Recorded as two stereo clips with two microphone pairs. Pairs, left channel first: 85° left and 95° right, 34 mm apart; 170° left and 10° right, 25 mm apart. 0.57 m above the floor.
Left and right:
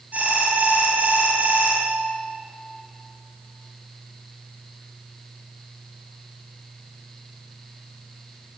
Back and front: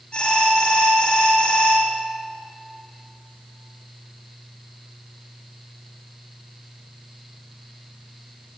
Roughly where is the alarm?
Behind right.